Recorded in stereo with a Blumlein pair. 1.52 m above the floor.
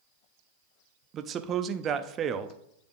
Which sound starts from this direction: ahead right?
A man speaking, at 1.1 s.